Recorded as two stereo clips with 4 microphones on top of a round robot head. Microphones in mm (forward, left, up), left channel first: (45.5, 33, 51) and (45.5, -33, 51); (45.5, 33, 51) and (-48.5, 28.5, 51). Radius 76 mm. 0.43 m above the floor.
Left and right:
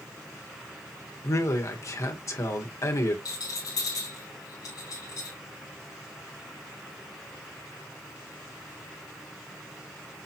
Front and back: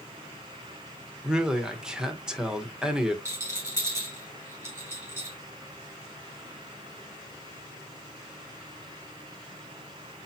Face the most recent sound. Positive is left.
turn(degrees=120)